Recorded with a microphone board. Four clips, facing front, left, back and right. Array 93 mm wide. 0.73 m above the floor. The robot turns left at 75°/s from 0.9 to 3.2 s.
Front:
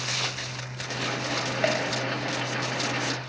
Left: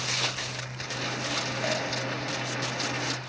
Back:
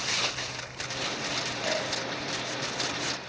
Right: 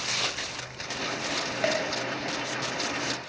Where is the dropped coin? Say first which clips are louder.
Right 4 dB, front 5 dB; 25° right, 1.8 m; by 1.9 s 40° right, 1.8 m.